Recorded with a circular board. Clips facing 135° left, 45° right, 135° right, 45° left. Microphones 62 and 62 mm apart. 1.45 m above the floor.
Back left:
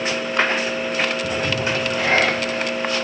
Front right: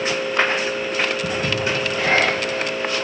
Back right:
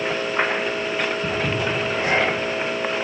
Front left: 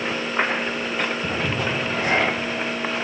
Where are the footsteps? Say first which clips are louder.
Even, back right 1 dB; 50° right, 1.7 m.